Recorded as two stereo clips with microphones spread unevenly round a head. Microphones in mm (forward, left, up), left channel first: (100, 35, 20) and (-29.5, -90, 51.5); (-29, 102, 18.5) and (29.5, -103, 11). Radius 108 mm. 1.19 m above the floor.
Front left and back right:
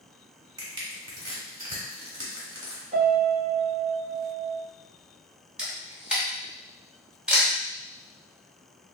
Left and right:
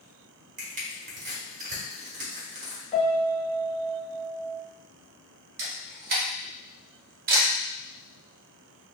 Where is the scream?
No scream in this recording.